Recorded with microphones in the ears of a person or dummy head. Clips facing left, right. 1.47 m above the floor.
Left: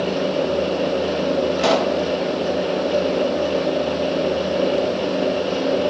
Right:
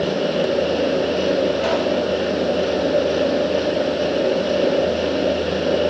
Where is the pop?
65° left (ahead or behind), 2 m.